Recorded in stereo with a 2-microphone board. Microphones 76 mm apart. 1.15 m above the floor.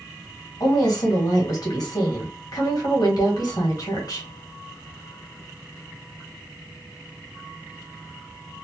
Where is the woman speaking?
55° left (ahead or behind), 1.5 m.